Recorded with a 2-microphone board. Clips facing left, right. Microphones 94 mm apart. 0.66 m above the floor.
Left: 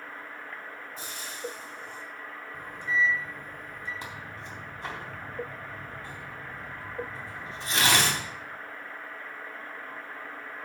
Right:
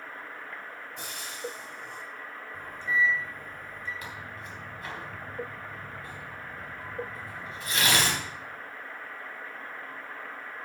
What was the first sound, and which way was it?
Frying, 65° right (ahead or behind).